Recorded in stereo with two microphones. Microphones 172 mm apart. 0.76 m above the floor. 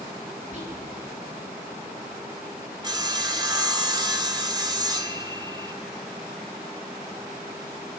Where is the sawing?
25° right (ahead or behind), 1.7 m.